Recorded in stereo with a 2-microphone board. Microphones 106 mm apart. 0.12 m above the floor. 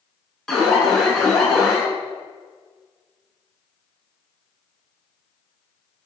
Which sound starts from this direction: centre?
An alarm, at 0.5 s.